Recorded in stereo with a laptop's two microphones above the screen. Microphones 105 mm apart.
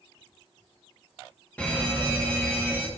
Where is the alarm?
10° left (ahead or behind), 1.3 m.